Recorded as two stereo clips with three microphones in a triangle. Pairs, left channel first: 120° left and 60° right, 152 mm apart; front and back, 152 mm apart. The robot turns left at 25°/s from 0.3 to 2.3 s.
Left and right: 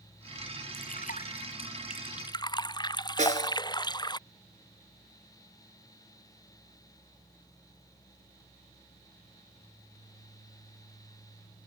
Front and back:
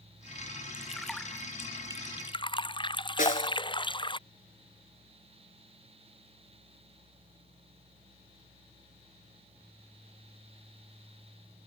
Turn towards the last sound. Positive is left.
turn(degrees=-25)